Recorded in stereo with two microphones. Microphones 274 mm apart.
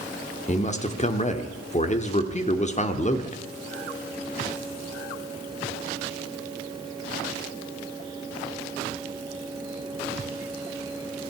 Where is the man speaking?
25° left (ahead or behind), 1.0 m.